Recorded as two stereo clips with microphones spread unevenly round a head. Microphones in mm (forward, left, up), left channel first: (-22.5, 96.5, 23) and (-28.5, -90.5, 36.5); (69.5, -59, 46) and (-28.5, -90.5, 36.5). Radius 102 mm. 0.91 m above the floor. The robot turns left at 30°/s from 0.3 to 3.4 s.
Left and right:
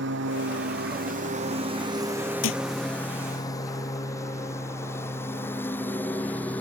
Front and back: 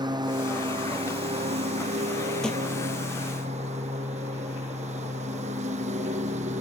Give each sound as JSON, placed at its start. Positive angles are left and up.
{"t": 0.0, "sound": "a lawn mower", "azimuth_deg": -115}
{"t": 2.4, "sound": "a thud", "azimuth_deg": 105}